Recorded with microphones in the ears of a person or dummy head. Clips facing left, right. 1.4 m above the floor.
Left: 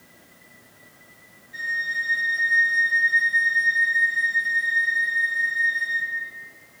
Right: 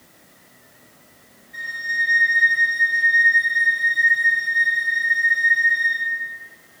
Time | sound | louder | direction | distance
1.5 | a flute | right 2 dB | 30° left (ahead or behind) | 0.9 m